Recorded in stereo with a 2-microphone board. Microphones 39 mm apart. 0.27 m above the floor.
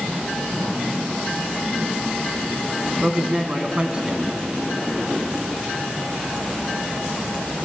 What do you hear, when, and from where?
3.0 s a man speaking: 25° right (ahead or behind), 2.0 m